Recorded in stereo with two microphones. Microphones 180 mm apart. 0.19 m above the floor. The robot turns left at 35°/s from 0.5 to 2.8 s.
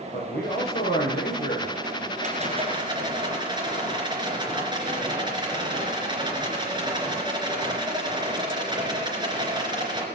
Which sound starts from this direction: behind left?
A man speaking, at 0.1 s.